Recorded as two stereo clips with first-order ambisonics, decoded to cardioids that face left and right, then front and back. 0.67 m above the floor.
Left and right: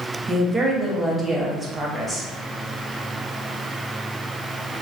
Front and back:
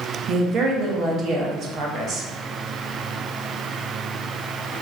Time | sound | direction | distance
0.3 | a woman speaking | 165° right | 0.6 m